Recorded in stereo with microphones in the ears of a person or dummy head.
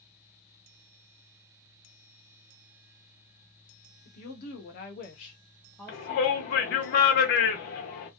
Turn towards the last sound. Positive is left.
turn(degrees=50)  # may be behind; listen again after turning